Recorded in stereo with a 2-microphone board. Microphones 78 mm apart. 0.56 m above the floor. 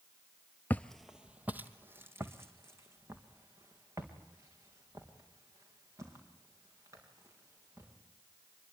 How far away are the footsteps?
About 0.6 m.